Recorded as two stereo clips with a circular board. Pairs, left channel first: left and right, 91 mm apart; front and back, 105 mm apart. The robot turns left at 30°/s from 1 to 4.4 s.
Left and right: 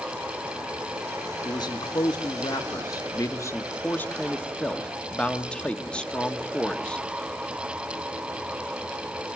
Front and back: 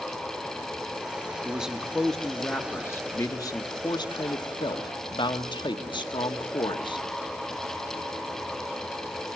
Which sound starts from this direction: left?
A man speaking, at 1.4 s.